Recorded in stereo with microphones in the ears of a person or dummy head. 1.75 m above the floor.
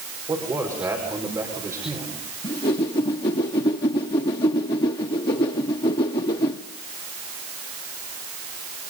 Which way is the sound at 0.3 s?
15° right (ahead or behind).